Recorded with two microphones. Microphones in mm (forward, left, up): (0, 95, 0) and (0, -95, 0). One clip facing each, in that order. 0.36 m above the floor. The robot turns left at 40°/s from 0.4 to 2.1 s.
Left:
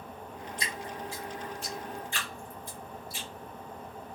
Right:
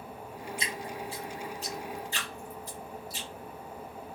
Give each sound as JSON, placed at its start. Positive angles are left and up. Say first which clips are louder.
{"t": 0.6, "sound": "dripping", "louder": "even", "side_deg": -20, "distance_m": 1.7}